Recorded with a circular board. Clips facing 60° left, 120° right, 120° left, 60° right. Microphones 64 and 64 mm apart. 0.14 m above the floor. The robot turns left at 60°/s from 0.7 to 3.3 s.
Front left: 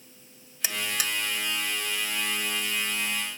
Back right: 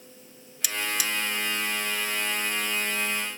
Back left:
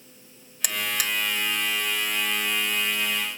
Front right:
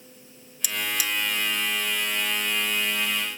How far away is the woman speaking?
No woman speaking in this recording.